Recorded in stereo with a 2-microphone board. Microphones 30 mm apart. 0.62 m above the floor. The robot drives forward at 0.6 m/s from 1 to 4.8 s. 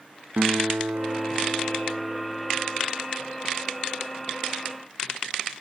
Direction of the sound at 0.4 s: 80° right.